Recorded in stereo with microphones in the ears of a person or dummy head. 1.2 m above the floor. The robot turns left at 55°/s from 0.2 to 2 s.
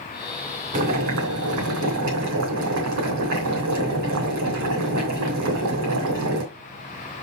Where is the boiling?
40° right, 3 m; by 6.4 s 110° right, 3 m.